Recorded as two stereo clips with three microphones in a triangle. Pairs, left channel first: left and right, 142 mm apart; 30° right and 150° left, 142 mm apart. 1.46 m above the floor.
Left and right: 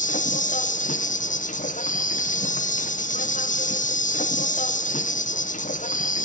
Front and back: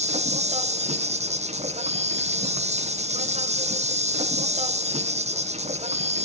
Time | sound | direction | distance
0.0 | an insect | 115° left | 0.7 m